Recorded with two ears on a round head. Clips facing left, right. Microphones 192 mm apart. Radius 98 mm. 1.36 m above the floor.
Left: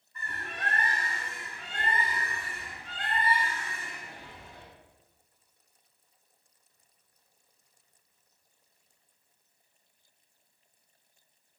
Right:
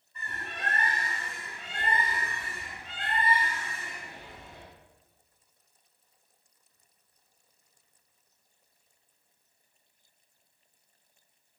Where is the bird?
20° right (ahead or behind), 3.5 m.